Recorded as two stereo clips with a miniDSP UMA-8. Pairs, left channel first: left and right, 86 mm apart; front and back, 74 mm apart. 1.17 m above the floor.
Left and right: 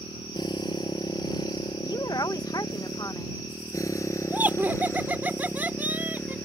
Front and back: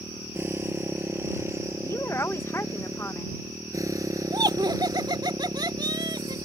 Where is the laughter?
160° right.